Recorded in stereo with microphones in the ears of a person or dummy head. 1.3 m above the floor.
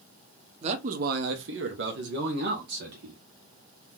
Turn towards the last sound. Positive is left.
turn(degrees=-50)  # may be behind; listen again after turning